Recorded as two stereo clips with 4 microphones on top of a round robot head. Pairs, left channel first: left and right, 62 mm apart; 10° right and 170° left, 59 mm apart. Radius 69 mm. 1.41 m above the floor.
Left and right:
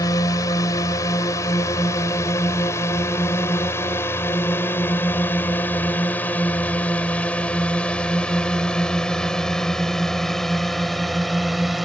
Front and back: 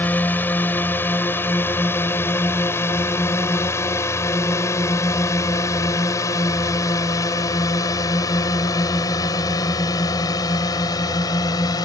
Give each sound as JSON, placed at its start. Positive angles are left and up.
{"t": 0.0, "sound": "a drone", "azimuth_deg": 50}